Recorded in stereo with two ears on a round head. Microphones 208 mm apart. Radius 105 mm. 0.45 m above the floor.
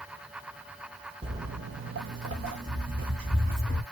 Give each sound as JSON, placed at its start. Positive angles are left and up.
{"t": 1.2, "sound": "footsteps", "side_deg": -25, "distance_m": 0.6}